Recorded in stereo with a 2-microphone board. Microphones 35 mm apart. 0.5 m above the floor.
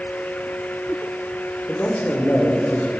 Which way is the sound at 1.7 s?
45° left (ahead or behind).